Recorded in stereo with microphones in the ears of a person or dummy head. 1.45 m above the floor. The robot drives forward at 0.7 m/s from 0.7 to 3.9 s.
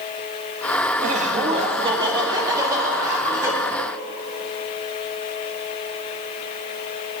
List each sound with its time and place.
1.0 s laughter: 40° right (ahead or behind), 1.0 m; by 3.5 s 15° right (ahead or behind), 2.5 m